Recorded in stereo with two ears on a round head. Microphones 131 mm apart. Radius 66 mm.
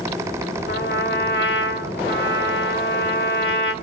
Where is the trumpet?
70° left (ahead or behind), 1.2 m.